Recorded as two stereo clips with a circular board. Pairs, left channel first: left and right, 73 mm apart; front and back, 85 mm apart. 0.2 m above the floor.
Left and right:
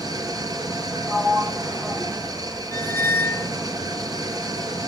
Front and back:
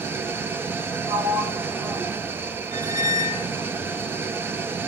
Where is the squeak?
150° left, 1.4 m.